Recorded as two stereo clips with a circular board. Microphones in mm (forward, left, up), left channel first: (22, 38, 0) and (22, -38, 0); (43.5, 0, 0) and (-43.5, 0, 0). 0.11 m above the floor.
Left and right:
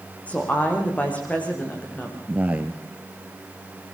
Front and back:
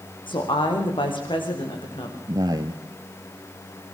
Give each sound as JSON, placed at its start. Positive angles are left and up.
{"t": 0.3, "sound": "a woman speaking", "azimuth_deg": 20, "distance_m": 7.0}
{"t": 2.3, "sound": "a man speaking", "azimuth_deg": -155, "distance_m": 1.7}